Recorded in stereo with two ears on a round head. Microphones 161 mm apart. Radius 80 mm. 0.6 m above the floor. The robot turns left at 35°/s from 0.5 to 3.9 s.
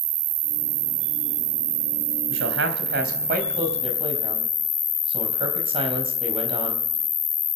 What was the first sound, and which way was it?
An insect, 80° right.